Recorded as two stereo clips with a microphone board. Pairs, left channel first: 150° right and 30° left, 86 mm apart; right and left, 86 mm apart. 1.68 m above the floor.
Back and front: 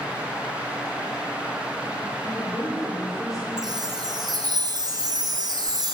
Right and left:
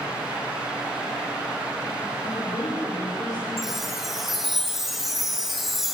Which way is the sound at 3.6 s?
5° left.